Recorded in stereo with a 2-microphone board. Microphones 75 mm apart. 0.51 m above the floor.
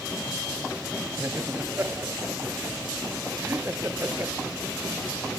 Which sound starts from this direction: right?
Laughter, at 1.2 s.